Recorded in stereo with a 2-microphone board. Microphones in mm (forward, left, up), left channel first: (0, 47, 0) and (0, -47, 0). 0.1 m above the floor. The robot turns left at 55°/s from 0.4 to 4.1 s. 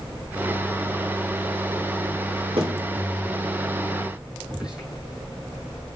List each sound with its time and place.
2.6 s a thud: 75° right (ahead or behind), 4 m; by 2.9 s 60° right (ahead or behind), 4 m
4.5 s whispering: 10° right (ahead or behind), 4 m